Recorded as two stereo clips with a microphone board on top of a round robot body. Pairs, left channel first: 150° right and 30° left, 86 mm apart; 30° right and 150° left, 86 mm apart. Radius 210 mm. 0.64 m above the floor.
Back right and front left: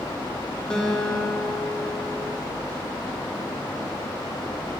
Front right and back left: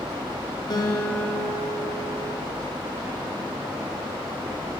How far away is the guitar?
About 1.8 m.